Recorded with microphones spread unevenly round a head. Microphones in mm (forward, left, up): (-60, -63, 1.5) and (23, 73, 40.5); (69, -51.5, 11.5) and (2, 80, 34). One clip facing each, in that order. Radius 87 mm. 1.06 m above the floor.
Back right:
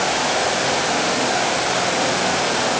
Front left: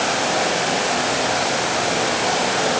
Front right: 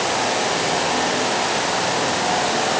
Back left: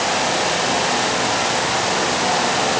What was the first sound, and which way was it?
Only background noise.